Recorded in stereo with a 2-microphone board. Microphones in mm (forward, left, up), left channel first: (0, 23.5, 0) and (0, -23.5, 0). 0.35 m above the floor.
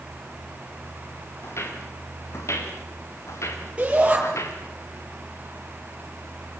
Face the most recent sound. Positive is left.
turn(degrees=-25)  # may be behind; listen again after turning